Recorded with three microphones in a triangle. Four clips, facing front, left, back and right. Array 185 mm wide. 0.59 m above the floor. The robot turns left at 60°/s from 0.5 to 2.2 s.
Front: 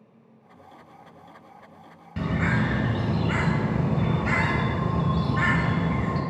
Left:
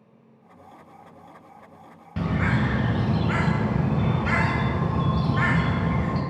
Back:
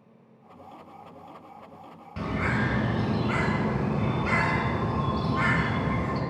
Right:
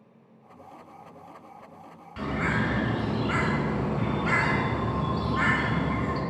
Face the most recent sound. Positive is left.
turn(degrees=70)